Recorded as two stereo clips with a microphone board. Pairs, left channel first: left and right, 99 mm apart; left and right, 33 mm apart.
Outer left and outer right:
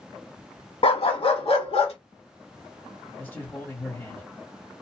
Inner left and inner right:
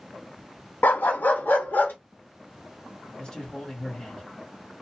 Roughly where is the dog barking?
Left.